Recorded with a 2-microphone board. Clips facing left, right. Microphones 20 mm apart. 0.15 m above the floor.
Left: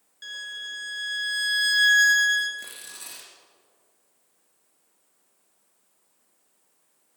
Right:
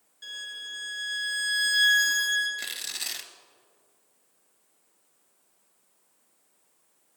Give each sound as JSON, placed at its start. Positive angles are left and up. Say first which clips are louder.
{"t": 0.2, "sound": "a violin", "louder": "left 2 dB", "side_deg": 35, "distance_m": 2.5}
{"t": 2.6, "sound": "tearing paper", "louder": "right 6 dB", "side_deg": -50, "distance_m": 1.3}